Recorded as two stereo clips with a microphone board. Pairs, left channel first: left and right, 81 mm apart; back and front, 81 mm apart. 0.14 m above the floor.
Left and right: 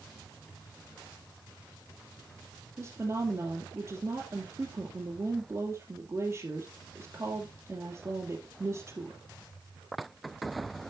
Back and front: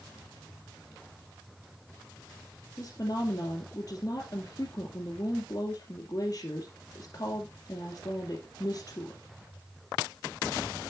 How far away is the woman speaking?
About 1.9 m.